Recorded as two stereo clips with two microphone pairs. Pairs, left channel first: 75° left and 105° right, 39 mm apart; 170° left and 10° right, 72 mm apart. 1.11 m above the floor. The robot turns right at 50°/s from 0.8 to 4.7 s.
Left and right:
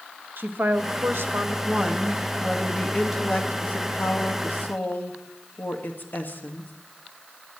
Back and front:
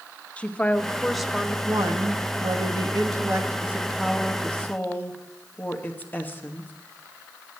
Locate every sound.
0.4 s a woman speaking: 120° right, 1.4 m; by 1.6 s 85° right, 1.4 m
1.7 s a woman speaking: 45° right, 2.0 m; by 6.7 s 105° left, 2.0 m